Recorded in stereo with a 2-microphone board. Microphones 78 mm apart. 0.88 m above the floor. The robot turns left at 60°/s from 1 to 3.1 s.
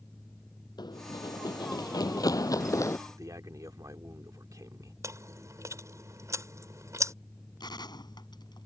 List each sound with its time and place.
0.8 s running footsteps: 65° left (ahead or behind); by 3.0 s 40° left (ahead or behind)
3.1 s a man speaking: 50° right (ahead or behind)
5.0 s chewing: 40° right (ahead or behind)
7.6 s a gunshot: 65° left (ahead or behind)